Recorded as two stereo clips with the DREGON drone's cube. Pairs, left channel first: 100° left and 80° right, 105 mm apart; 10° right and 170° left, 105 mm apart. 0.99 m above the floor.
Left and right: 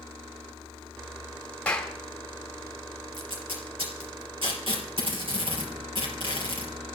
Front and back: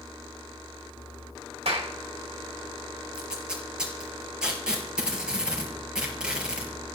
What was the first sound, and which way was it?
A clap, straight behind.